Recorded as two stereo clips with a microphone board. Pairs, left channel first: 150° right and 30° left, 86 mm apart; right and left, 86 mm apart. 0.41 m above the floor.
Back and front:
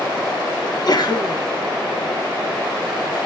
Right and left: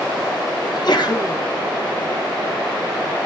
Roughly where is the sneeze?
Behind right.